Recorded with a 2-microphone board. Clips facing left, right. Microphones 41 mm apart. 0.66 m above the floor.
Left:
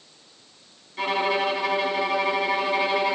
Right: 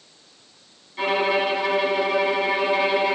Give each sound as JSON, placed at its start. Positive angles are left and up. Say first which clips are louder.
{"t": 1.0, "sound": "a violin", "louder": "right 2 dB", "side_deg": 0, "distance_m": 6.5}